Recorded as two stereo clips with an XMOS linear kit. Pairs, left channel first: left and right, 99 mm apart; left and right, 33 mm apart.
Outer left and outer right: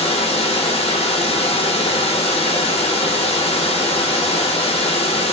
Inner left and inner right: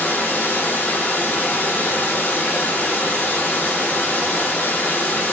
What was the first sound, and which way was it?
Running water, 80° left.